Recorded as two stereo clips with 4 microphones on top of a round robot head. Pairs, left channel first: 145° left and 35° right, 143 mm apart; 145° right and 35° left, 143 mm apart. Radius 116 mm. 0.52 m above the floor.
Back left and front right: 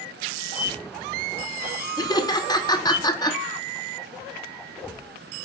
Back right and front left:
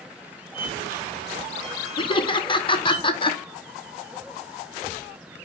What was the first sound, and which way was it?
A squeak, 10° right.